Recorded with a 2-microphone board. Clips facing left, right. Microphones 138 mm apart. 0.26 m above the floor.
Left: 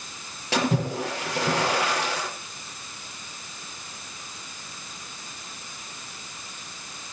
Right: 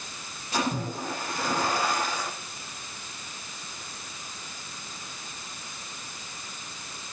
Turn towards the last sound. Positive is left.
turn(degrees=75)  # may be behind; listen again after turning